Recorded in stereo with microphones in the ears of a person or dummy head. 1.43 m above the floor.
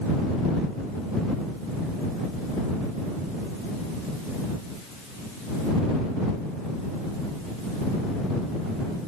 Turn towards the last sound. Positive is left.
No sound to turn to.